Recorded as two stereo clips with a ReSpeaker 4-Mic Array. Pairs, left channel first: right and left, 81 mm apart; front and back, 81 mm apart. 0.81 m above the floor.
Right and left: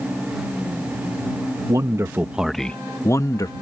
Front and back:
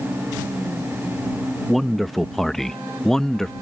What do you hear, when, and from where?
1.7 s a man speaking: 90° left; by 3.5 s 80° right